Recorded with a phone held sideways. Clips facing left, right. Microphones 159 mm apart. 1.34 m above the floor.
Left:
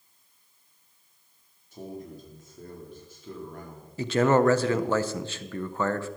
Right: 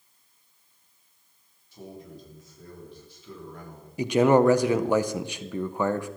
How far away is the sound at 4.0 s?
About 0.7 m.